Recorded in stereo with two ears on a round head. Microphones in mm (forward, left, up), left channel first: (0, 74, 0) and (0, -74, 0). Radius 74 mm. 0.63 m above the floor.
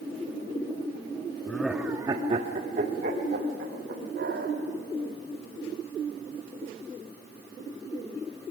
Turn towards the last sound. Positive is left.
turn(degrees=-70)  # may be behind; listen again after turning